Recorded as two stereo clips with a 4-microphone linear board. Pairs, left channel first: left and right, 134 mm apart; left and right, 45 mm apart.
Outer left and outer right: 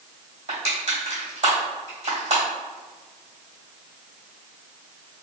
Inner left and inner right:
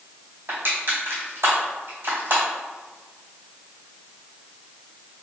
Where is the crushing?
60° right (ahead or behind), 1.8 m.